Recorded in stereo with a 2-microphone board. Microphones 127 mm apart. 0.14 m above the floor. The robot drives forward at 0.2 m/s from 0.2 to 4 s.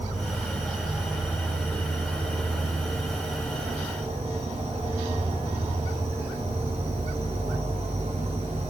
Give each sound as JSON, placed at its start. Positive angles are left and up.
{"t": 0.0, "sound": "an insect", "side_deg": -30, "distance_m": 1.1}